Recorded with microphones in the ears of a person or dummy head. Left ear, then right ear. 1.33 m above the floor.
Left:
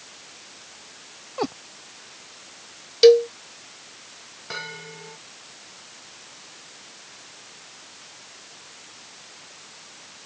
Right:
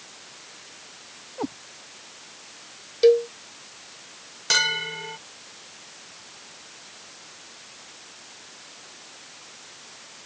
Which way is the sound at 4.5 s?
80° right.